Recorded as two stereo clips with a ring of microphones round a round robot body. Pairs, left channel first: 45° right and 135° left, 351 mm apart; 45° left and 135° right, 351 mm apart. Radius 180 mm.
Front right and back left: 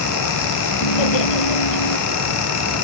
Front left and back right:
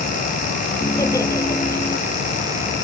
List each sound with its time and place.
0.8 s laughter: 35° right